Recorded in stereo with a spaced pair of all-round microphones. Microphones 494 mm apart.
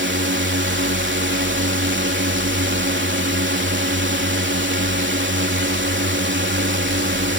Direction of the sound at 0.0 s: 20° right (ahead or behind).